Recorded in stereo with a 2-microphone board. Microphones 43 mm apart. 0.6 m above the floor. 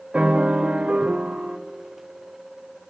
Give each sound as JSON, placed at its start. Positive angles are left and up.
{"t": 0.1, "sound": "a piano", "side_deg": -25, "distance_m": 1.1}